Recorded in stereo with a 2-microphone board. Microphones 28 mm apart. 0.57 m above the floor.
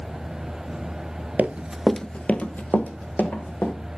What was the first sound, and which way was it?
Running footsteps, 55° right (ahead or behind).